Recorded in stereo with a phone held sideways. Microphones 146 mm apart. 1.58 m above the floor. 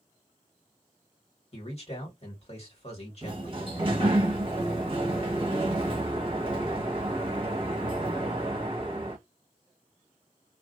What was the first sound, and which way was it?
A man speaking, 45° left (ahead or behind).